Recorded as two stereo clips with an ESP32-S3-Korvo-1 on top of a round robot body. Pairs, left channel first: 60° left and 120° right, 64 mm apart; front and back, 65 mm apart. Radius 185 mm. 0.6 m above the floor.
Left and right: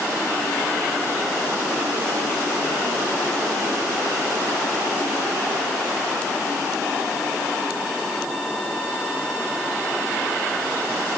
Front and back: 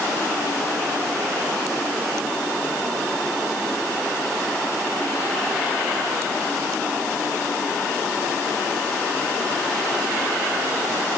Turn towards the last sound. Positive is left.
No sound to turn to.